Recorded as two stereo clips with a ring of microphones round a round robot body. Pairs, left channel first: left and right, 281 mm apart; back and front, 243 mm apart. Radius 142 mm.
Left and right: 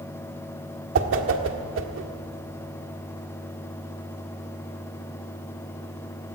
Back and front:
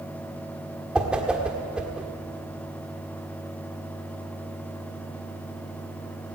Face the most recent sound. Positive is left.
turn(degrees=-85)